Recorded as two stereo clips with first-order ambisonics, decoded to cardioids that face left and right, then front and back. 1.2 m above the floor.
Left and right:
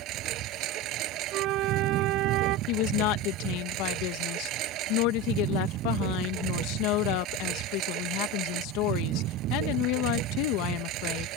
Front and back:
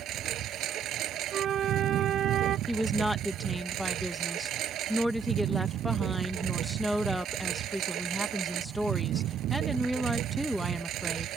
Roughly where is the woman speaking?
Left.